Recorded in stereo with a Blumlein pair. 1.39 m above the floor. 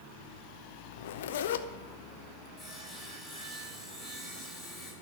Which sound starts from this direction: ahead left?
A zipper, at 0.9 s.